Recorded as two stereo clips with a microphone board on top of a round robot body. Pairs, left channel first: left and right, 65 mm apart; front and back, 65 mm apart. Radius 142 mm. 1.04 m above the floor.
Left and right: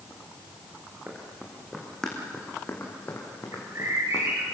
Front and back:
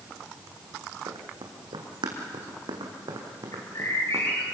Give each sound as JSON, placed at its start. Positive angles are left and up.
{"t": 1.1, "sound": "running footsteps", "azimuth_deg": -165, "distance_m": 3.0}
{"t": 3.5, "sound": "a bird", "azimuth_deg": -45, "distance_m": 7.0}